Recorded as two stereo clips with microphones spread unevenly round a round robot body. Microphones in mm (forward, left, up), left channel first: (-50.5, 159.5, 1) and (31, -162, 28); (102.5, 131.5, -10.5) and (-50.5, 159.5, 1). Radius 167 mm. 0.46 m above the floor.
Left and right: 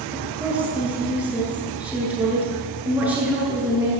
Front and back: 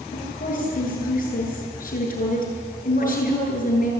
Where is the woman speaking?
10° left, 8 m.